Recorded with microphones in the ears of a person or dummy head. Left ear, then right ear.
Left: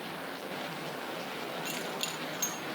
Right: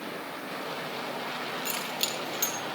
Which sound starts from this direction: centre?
Keys jangling, at 1.6 s.